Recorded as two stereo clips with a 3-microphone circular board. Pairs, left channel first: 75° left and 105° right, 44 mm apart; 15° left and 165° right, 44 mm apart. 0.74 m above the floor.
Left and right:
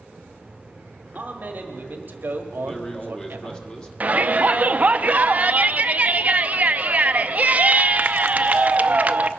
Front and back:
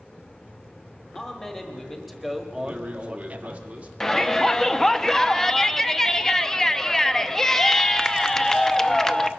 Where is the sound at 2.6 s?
140° left, 1.6 m.